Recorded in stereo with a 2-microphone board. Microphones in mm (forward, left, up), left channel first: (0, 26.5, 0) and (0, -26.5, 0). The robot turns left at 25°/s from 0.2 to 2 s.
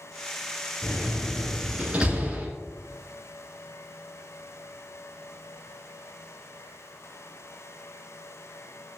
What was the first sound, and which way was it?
A door slam, 50° right (ahead or behind).